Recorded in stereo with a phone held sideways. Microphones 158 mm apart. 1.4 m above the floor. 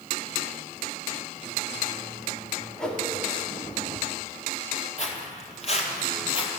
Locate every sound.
2.8 s a whoosh: 5° left (ahead or behind), 2 m
5.0 s footsteps: 45° left (ahead or behind), 2.0 m; by 6.5 s 35° left (ahead or behind), 1.6 m